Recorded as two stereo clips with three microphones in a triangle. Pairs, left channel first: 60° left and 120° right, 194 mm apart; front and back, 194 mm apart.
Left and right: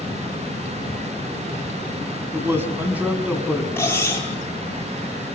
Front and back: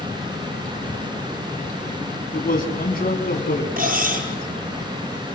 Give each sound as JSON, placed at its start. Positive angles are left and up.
{"t": 2.3, "sound": "a man speaking", "azimuth_deg": -45, "distance_m": 4.0}
{"t": 3.8, "sound": "cutlery clinking", "azimuth_deg": 140, "distance_m": 7.0}